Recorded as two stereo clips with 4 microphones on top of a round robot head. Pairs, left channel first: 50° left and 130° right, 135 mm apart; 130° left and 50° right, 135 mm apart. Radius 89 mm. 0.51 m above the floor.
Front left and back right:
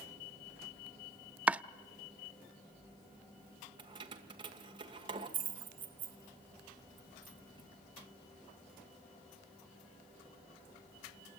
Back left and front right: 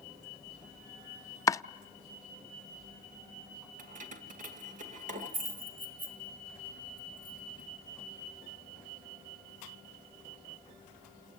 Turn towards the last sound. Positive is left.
turn(degrees=-75)